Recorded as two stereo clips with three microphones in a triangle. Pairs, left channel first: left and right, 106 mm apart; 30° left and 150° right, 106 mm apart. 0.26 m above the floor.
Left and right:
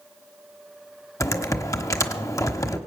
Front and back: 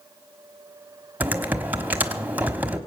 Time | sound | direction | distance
1.2 | typing on a keyboard | 140° left | 1.1 m